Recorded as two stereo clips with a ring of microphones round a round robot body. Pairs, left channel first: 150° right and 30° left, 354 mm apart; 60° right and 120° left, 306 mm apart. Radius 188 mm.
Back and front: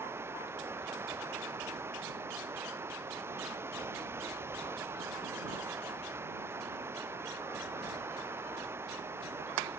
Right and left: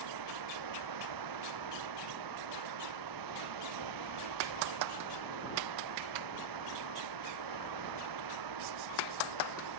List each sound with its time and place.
0.0 s running water: 115° left